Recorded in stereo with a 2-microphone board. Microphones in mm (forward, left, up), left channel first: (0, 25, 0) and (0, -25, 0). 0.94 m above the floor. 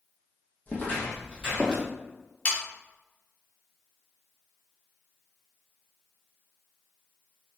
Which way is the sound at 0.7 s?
35° left (ahead or behind).